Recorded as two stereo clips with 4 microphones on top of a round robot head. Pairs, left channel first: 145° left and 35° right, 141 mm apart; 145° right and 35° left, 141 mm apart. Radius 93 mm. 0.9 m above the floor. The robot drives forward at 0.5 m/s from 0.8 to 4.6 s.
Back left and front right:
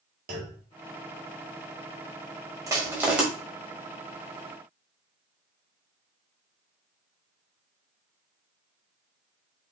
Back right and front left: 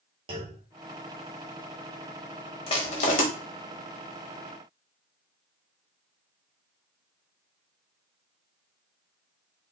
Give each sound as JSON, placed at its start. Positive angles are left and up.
{"t": 0.3, "sound": "a clunk", "azimuth_deg": -20, "distance_m": 1.6}
{"t": 2.7, "sound": "crushing", "azimuth_deg": -100, "distance_m": 1.0}